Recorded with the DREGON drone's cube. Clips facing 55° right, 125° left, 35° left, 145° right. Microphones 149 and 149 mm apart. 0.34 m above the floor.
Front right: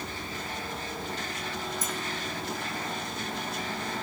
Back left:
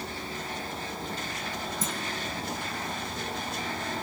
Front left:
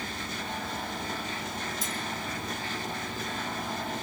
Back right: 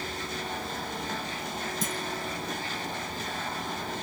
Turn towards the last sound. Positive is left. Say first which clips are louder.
# back left 1 dB, back right 3 dB
turn(degrees=-175)